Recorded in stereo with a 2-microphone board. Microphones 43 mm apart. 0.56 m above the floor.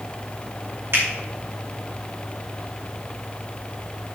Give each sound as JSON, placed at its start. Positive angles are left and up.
{"t": 0.9, "sound": "a finger snap", "side_deg": -80, "distance_m": 5.0}